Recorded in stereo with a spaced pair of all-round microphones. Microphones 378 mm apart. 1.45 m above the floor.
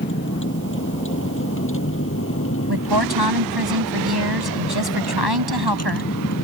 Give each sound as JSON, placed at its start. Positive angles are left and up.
{"t": 0.0, "sound": "a vehicle", "side_deg": 30}
{"t": 2.7, "sound": "a woman speaking", "side_deg": -90}